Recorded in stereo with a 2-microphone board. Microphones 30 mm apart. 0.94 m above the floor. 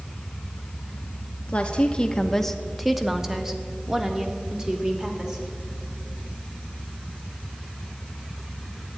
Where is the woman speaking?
35° left (ahead or behind), 0.8 m; by 5.5 s 30° right (ahead or behind), 2.5 m.